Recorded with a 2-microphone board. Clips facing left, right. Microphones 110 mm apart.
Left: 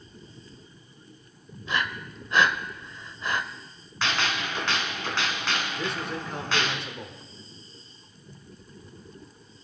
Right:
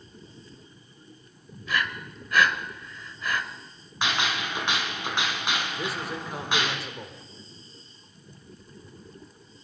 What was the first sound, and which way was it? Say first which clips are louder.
Breathing: even; 25° left (ahead or behind).